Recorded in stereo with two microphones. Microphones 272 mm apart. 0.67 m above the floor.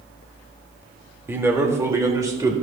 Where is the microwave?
No microwave in this recording.